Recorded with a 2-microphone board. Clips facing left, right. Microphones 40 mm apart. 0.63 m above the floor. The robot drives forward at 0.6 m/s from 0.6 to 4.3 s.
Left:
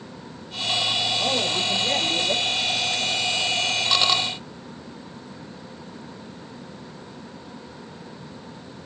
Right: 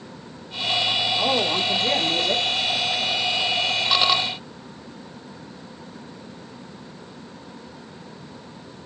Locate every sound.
1.2 s a woman speaking: 45° right (ahead or behind), 1.9 m; by 2.5 s 35° right (ahead or behind), 2.5 m